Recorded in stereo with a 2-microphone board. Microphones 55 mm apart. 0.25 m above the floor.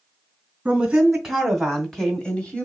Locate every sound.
0.7 s a woman speaking: 15° right (ahead or behind), 1.4 m; by 2.7 s 25° left (ahead or behind), 1.5 m